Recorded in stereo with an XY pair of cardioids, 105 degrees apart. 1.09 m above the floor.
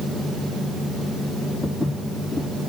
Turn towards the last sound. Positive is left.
turn(degrees=-20)